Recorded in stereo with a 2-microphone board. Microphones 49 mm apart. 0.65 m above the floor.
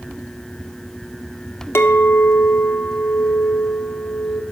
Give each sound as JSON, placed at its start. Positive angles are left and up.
{"t": 1.8, "sound": "a clink", "side_deg": 60, "distance_m": 1.0}